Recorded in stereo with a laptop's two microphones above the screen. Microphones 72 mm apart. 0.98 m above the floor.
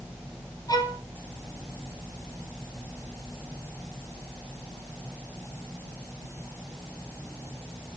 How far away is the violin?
About 3 m.